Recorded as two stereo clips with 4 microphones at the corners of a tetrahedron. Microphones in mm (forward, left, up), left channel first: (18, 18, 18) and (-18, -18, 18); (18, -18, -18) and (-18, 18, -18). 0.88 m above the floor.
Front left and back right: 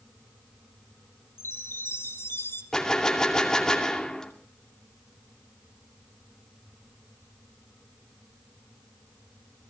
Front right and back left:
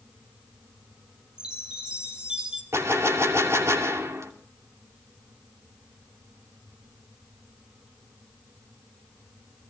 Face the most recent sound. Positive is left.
turn(degrees=125)